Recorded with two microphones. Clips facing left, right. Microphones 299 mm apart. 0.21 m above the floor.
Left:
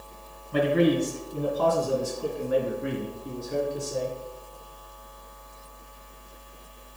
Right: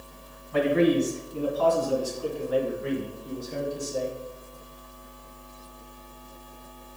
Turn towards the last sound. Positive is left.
turn(degrees=65)  # may be behind; listen again after turning